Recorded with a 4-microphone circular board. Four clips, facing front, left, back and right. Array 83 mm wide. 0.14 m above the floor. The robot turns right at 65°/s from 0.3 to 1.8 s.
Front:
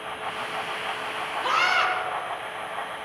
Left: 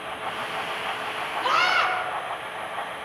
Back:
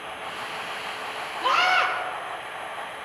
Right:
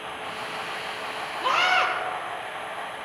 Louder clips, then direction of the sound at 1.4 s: Even, back 2 dB; 140° right.